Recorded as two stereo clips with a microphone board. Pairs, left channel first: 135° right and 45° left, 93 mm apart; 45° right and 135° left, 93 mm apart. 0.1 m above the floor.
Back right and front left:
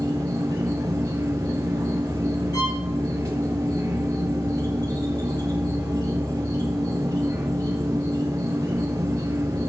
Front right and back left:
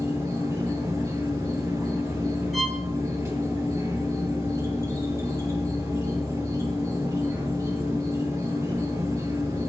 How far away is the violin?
About 2 m.